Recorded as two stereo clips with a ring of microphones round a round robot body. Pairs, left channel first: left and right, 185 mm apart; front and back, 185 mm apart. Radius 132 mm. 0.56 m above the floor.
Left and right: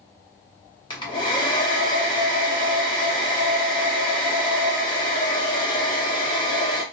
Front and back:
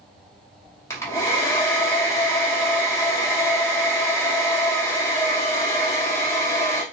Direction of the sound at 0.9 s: 60° left.